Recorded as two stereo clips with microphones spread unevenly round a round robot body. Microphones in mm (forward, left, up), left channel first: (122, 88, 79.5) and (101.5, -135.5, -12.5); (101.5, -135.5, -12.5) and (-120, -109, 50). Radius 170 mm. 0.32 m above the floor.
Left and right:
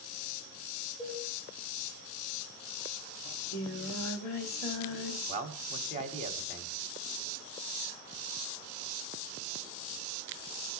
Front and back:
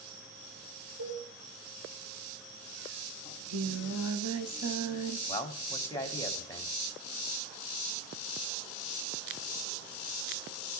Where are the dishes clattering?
155° right, 7 m.